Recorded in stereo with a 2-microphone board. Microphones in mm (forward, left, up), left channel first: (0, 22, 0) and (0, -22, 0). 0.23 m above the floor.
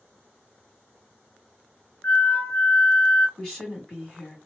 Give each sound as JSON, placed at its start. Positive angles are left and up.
{"t": 2.0, "sound": "a flute", "side_deg": 35, "distance_m": 1.5}
{"t": 3.4, "sound": "a woman speaking", "side_deg": 10, "distance_m": 1.6}